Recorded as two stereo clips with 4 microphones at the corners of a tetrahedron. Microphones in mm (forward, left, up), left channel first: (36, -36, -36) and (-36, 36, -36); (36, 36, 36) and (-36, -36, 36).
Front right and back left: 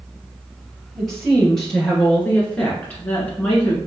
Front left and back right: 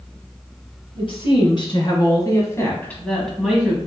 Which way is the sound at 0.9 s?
45° left.